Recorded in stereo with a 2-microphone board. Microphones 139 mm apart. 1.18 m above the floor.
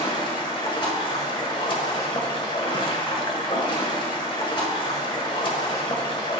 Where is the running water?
35° left (ahead or behind), 1.1 m.